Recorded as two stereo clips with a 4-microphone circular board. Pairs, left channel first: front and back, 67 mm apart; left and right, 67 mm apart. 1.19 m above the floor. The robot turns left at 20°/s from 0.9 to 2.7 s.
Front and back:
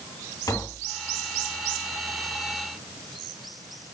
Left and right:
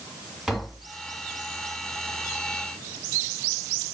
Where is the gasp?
I don't hear a gasp.